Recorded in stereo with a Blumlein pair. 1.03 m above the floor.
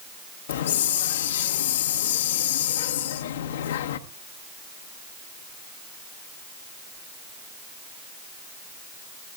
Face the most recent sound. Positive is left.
turn(degrees=60)